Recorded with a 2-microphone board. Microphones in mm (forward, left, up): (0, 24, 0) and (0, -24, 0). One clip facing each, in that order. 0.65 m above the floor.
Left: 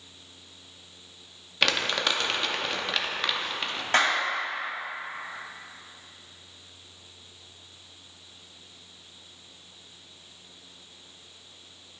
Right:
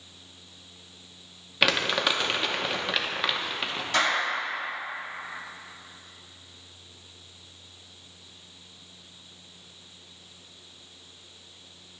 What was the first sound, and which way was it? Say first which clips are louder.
Crumpling: right 2 dB; 10° right (ahead or behind).